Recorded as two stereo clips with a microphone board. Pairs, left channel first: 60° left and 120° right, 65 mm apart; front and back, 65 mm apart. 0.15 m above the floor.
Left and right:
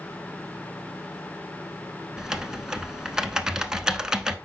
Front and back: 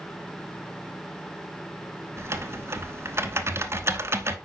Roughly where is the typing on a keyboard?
Behind.